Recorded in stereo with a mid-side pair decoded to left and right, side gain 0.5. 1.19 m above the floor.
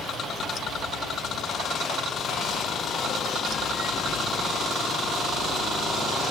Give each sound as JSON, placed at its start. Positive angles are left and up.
{"t": 0.0, "sound": "running water", "azimuth_deg": 70, "distance_m": 3.5}